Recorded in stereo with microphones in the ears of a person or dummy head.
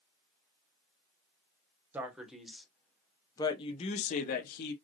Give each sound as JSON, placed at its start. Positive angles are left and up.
{"t": 1.9, "sound": "a man speaking", "side_deg": -10, "distance_m": 1.3}